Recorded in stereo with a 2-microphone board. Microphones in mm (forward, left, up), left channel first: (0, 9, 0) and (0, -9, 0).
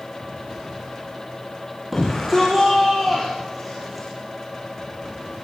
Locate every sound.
1.9 s a shout: 5° right (ahead or behind), 6 m; by 4.1 s centre (ahead or behind), 5 m